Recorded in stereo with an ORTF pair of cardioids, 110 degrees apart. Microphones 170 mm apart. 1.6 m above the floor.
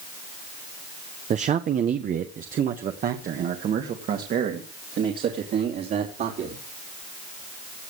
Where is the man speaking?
45° right, 0.9 m; by 6.6 s 60° right, 4 m.